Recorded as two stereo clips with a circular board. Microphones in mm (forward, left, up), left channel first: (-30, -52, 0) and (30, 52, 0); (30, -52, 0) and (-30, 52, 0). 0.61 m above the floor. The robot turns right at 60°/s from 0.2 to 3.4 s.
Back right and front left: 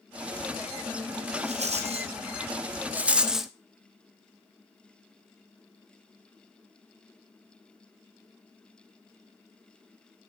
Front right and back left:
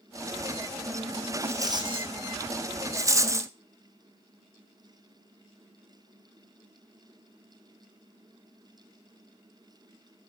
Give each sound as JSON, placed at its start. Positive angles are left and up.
{"t": 1.4, "sound": "a rattle", "azimuth_deg": 50, "distance_m": 1.9}
{"t": 2.9, "sound": "a rattle", "azimuth_deg": 115, "distance_m": 0.8}